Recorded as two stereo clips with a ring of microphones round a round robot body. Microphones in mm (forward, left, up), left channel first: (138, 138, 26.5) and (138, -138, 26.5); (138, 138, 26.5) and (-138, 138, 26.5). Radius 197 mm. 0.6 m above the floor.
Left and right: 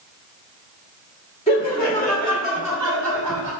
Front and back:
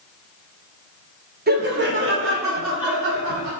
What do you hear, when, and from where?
1.5 s laughter: 150° left, 1.3 m; by 3.5 s 160° right, 1.9 m